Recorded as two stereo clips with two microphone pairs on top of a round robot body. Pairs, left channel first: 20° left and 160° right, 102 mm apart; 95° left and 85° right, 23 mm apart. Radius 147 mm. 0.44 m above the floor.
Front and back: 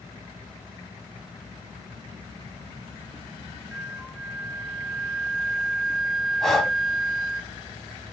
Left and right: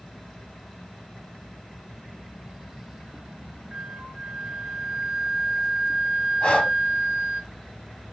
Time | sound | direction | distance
3.7 | a flute | 50° right | 1.4 m
6.4 | breathing | 100° left | 1.7 m